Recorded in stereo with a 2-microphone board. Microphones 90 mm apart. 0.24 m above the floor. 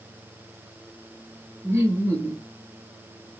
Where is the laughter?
30° right (ahead or behind), 4.5 m.